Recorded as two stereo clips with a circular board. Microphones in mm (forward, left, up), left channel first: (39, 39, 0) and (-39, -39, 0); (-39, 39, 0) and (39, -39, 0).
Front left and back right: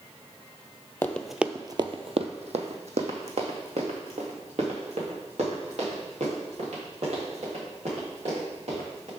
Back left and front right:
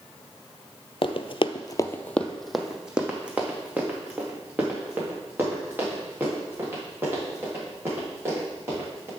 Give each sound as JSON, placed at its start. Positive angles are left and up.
{"t": 1.0, "sound": "running footsteps", "azimuth_deg": 115, "distance_m": 0.6}